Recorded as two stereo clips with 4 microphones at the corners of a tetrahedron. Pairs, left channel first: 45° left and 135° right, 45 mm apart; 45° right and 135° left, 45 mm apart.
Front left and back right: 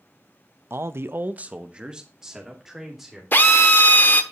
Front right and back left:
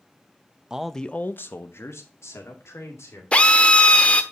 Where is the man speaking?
155° right, 0.7 m; by 3.2 s 50° right, 3 m.